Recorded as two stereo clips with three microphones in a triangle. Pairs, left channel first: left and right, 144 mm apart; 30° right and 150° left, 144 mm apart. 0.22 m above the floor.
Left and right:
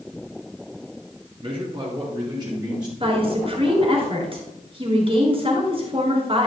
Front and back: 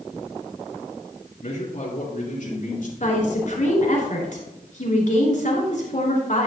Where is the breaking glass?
I don't hear breaking glass.